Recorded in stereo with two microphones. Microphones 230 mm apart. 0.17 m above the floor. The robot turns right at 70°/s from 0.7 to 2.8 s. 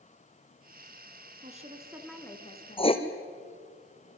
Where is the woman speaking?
45° right, 2 m; by 2.9 s 50° left, 2 m.